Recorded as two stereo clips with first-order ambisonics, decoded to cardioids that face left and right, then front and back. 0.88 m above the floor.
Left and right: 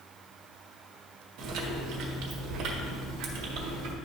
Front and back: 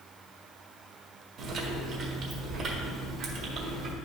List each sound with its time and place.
1.4 s chewing: 125° right, 1.6 m